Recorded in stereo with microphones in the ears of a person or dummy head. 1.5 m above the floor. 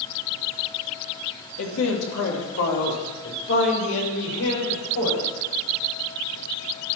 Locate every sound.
1.6 s a man speaking: 80° left, 2.5 m